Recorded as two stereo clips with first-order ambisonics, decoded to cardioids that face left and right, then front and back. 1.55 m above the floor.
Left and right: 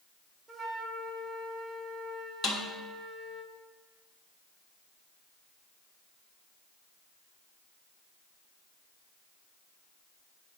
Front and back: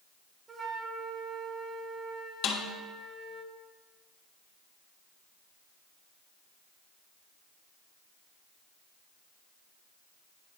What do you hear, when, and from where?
0.5 s a flute: 140° right, 0.9 m
2.4 s a snare drum: 30° left, 1.4 m